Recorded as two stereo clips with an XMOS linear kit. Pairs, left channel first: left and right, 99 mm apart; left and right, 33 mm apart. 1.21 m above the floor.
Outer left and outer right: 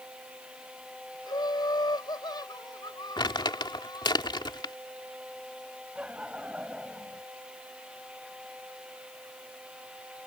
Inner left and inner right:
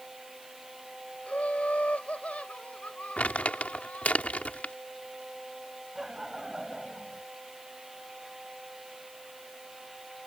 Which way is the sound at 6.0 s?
10° right (ahead or behind).